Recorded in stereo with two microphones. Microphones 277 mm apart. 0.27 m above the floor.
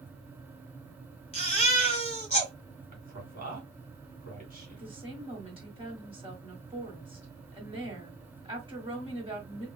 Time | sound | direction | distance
1.3 | a baby crying | 25° left (ahead or behind) | 1.6 m
2.9 | a man speaking | 30° right (ahead or behind) | 2.5 m
4.7 | a woman speaking | 20° right (ahead or behind) | 1.7 m